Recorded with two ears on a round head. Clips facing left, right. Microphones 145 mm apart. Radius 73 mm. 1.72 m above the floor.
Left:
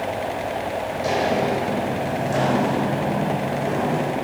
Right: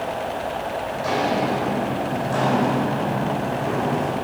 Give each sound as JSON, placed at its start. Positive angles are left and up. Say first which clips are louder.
{"t": 0.9, "sound": "footsteps", "louder": "left 1 dB", "side_deg": 30, "distance_m": 5.0}